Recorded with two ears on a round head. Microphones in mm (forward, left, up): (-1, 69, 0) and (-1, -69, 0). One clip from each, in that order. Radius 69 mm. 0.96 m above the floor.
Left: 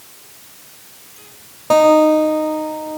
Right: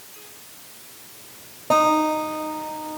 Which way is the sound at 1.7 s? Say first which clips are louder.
Left 8 dB; 30° left (ahead or behind).